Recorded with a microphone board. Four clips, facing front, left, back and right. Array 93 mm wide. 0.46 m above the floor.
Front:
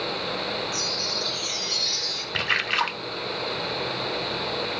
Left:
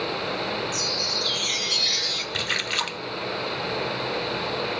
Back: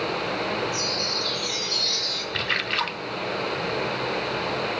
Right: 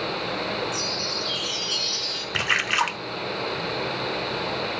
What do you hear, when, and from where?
0.7 s a chime: 90° left, 5 m
2.3 s a splash: 75° right, 0.6 m